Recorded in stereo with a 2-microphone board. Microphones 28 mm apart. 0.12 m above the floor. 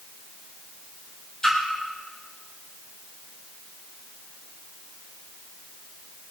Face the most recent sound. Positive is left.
turn(degrees=25)  # may be behind; listen again after turning